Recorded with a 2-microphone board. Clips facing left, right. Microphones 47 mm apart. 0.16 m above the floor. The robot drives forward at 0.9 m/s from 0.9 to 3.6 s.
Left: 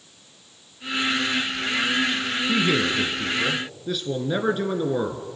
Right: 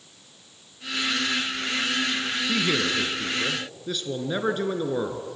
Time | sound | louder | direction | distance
2.5 | a man speaking | left 3 dB | 5° left (ahead or behind) | 1.1 m